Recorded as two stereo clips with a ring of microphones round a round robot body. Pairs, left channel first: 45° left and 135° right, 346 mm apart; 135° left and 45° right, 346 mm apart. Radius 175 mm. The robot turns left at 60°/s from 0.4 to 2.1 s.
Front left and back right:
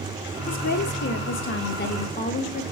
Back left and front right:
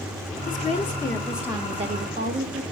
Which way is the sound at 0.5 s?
95° left.